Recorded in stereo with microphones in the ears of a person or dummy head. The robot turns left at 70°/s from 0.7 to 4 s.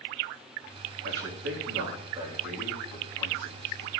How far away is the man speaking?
About 4 m.